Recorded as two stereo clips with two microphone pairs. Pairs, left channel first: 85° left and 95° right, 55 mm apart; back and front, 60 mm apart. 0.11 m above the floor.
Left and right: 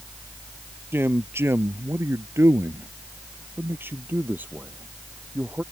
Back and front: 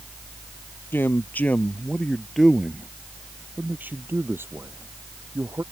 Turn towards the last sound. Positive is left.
turn(degrees=-35)